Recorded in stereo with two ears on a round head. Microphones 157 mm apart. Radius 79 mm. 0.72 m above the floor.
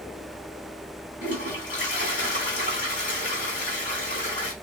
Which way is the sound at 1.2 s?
50° left (ahead or behind).